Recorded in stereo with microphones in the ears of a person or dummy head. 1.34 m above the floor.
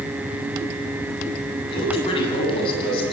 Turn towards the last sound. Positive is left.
turn(degrees=25)  # may be behind; listen again after turning